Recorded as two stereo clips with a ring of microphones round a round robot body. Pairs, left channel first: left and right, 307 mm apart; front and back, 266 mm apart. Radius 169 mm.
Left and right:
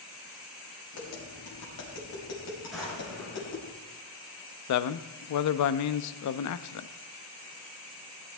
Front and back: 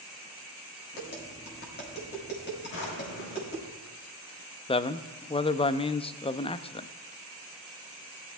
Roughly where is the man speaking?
Left.